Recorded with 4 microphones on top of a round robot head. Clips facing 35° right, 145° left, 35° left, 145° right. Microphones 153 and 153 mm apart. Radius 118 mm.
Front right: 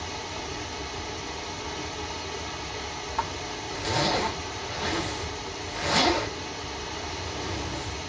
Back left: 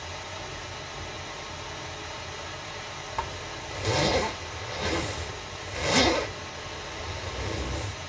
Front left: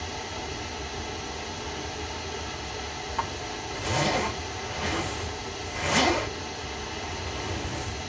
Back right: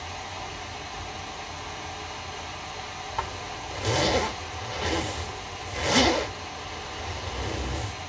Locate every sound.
0.0 s running water: straight ahead, 1.1 m
3.2 s a zipper: 160° right, 1.2 m